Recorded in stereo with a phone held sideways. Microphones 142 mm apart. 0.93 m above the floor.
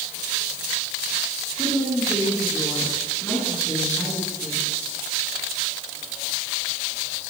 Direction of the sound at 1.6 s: 15° left (ahead or behind).